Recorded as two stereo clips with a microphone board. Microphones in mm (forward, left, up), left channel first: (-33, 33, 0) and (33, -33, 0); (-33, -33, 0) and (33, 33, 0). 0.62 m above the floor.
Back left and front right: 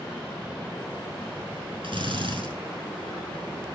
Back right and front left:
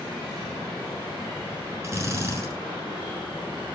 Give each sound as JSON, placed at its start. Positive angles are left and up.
{"t": 1.8, "sound": "a drill", "azimuth_deg": -15, "distance_m": 6.5}